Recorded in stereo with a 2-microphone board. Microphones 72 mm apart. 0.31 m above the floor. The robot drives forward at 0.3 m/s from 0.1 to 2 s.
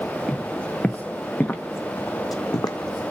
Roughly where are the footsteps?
Centre.